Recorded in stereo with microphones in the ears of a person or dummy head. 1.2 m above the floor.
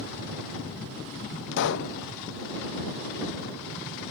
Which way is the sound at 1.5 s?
65° left (ahead or behind).